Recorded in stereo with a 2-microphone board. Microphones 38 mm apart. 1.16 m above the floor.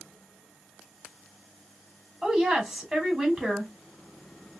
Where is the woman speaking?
15° right (ahead or behind), 2.5 m.